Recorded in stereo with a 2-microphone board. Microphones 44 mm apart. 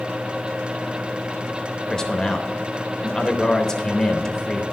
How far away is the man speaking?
About 0.8 m.